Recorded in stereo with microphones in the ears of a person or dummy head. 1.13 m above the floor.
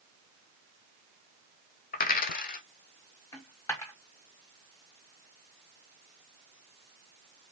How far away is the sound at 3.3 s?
About 0.9 m.